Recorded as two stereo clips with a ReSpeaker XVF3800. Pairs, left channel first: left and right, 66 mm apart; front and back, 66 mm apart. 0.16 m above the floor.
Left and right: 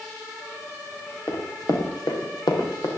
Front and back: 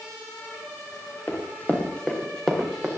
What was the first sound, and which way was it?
Running footsteps, 55° left.